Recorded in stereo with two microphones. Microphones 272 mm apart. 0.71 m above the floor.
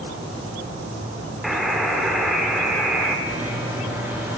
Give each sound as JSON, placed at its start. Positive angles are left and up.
{"t": 1.4, "sound": "a buzzer", "side_deg": 0, "distance_m": 0.9}
{"t": 3.3, "sound": "a microwave", "side_deg": -10, "distance_m": 1.3}